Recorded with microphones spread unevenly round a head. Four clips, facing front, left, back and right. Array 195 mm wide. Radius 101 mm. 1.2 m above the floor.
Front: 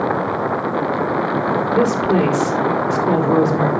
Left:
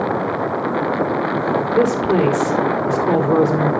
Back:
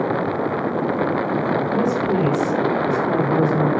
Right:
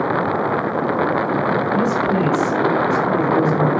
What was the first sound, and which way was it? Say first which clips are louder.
A woman speaking: left 2 dB, front 6 dB; 25° left.